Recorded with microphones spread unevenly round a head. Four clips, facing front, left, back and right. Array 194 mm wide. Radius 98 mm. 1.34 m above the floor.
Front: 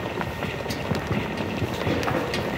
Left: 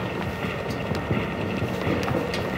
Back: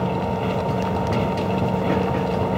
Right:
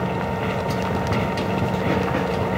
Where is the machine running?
155° right.